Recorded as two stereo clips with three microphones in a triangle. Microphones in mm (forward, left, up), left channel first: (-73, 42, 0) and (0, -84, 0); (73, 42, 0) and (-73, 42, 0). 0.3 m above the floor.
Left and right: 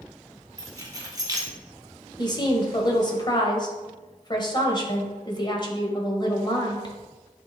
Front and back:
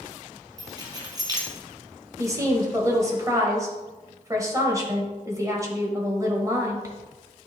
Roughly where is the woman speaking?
Behind left.